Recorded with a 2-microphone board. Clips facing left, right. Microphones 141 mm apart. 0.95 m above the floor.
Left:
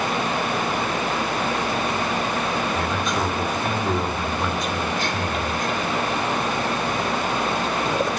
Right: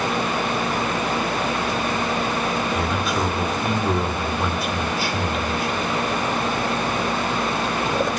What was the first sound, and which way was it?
A man speaking, 5° right (ahead or behind).